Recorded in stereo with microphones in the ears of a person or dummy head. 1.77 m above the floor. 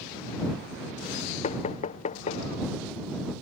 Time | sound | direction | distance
1.4 | knocking | 40° left (ahead or behind) | ?